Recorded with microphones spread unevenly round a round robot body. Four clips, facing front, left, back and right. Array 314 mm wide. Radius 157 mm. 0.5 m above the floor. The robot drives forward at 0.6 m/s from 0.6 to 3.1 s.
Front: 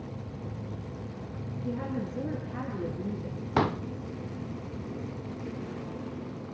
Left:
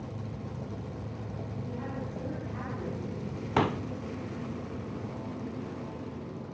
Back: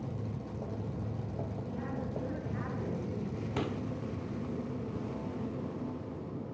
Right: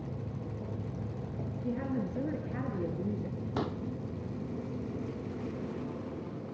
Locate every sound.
1.6 s a woman speaking: 45° right, 8.5 m; by 3.4 s 50° right, 8 m
3.6 s a pop: 45° left, 0.5 m